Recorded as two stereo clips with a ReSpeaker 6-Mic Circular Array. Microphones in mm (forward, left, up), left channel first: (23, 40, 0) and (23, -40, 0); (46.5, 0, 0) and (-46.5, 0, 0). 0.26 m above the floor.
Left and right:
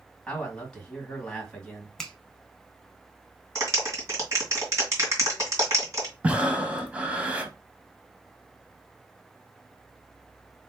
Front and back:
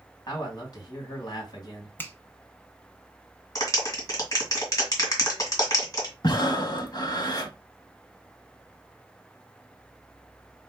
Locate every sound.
0.3 s a man speaking: 5° left, 2.5 m
2.0 s a finger snap: 15° left, 0.7 m
3.5 s a clap: 40° right, 2 m
6.2 s breathing: 20° right, 0.7 m